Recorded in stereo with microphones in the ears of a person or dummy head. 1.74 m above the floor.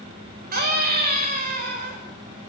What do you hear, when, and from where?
0.5 s a scream: 50° right (ahead or behind), 6 m